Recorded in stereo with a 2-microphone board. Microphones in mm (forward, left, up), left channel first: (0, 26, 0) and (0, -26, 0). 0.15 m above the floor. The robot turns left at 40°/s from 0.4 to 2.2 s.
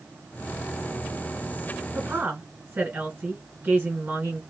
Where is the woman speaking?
35° right (ahead or behind), 1.7 m.